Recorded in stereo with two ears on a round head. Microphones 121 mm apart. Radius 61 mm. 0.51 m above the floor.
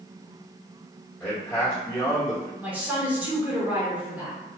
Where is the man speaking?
10° left (ahead or behind), 1.6 m.